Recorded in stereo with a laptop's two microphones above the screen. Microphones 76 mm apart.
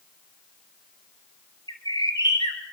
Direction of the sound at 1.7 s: 65° left (ahead or behind).